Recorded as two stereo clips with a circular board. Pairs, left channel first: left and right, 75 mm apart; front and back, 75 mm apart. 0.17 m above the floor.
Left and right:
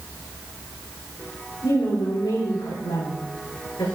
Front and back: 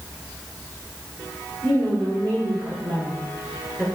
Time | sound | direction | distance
1.6 | a woman speaking | 120° left | 6 m